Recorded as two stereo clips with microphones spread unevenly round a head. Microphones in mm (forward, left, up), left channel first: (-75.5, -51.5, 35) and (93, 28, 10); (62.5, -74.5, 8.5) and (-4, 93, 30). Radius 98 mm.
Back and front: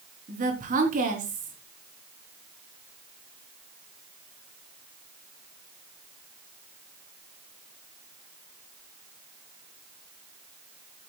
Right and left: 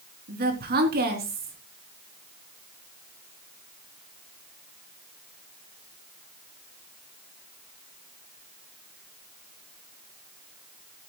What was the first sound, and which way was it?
A woman speaking, 75° left.